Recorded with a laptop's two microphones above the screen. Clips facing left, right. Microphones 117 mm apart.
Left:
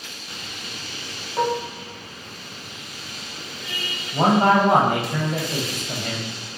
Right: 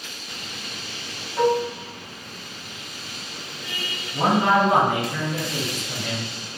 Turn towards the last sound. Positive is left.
turn(degrees=55)  # may be behind; listen again after turning